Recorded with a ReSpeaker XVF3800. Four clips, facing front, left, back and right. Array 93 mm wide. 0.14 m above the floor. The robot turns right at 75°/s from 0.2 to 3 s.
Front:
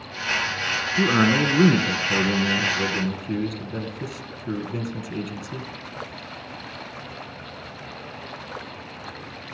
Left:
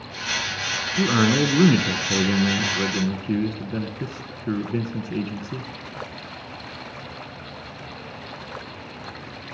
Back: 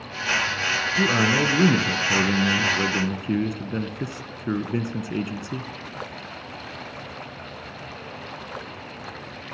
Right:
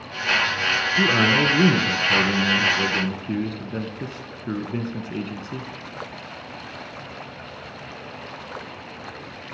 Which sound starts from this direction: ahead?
A man speaking, at 1.0 s.